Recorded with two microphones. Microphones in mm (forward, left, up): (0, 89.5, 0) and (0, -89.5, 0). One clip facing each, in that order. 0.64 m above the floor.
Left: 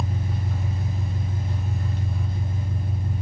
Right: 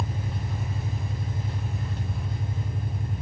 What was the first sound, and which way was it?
An engine running, centre (ahead or behind).